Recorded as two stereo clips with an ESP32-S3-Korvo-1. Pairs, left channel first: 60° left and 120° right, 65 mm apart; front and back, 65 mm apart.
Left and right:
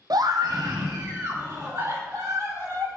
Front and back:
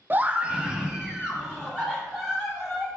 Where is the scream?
120° right, 0.5 m; by 2.9 s 95° right, 4.5 m.